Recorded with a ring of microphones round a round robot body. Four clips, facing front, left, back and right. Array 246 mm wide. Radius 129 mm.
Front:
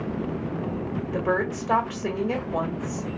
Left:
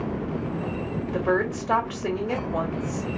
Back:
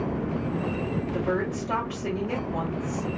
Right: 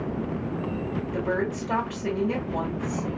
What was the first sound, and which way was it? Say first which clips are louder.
A woman speaking: left 4 dB, front 4 dB; 50° left.